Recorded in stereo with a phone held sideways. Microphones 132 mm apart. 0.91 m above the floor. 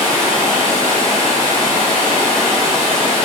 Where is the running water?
40° left (ahead or behind), 1.4 m.